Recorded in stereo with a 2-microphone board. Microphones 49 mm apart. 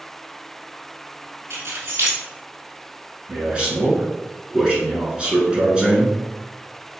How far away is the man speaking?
About 1.1 m.